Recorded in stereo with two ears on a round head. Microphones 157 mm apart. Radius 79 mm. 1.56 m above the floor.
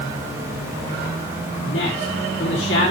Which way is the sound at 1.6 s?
75° left (ahead or behind).